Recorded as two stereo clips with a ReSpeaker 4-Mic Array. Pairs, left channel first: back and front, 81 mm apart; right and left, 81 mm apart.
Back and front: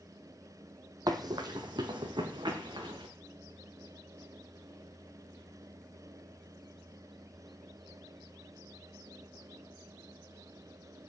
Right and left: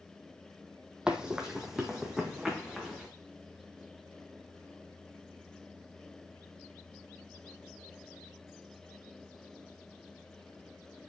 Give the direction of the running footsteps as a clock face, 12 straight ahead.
12 o'clock.